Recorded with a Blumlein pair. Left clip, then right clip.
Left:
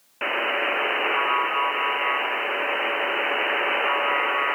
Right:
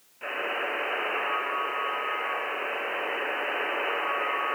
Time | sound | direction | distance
0.2 | a buzzer | 55° left | 1.1 m